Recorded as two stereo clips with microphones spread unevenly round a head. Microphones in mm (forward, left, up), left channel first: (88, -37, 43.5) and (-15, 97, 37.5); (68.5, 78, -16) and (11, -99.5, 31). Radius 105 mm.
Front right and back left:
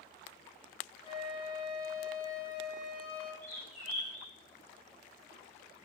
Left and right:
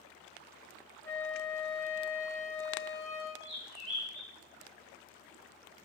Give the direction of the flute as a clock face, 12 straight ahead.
1 o'clock.